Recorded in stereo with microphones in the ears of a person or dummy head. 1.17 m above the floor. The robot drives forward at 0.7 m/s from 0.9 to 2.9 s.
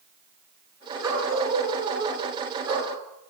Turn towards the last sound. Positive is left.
turn(degrees=-15)  # may be behind; listen again after turning